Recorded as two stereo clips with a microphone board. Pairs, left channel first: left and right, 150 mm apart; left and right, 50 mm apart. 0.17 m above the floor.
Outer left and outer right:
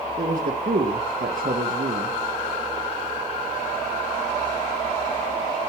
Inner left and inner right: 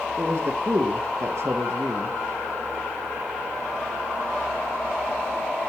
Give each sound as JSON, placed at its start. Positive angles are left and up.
{"t": 0.2, "sound": "a man speaking", "side_deg": -70, "distance_m": 3.0}